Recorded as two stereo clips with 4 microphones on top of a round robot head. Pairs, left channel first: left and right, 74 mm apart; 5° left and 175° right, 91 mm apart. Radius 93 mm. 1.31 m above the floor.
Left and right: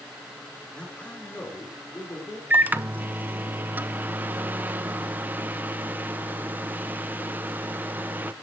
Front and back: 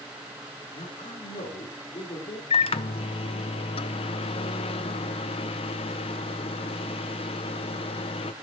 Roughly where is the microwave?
Ahead.